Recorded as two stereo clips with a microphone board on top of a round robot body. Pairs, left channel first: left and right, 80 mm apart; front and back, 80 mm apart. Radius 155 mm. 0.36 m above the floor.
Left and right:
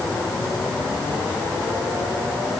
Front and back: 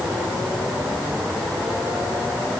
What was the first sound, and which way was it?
Only background noise.